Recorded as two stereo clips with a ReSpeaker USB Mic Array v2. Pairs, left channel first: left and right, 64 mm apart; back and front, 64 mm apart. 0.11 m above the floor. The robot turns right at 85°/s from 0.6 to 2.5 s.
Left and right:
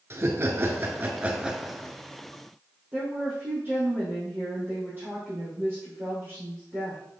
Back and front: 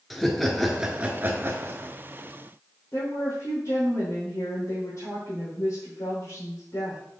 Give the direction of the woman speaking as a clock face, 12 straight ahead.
5 o'clock.